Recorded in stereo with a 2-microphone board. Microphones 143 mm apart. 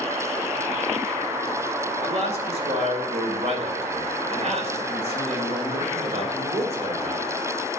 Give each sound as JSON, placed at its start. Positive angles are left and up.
{"t": 2.0, "sound": "a man speaking", "side_deg": -50, "distance_m": 2.0}